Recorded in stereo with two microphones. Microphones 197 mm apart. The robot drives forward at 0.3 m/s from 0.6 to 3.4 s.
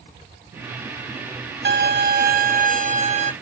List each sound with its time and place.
1.6 s a violin: 60° right (ahead or behind), 0.5 m; by 3.3 s 35° right (ahead or behind), 0.8 m